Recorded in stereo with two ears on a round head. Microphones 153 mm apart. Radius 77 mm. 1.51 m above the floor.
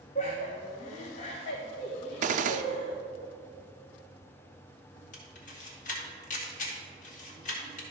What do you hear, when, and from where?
0.1 s laughter: 40° left (ahead or behind), 1.3 m
2.2 s a gunshot: 45° right (ahead or behind), 0.5 m
5.1 s a camera shutter: 45° left (ahead or behind), 2.0 m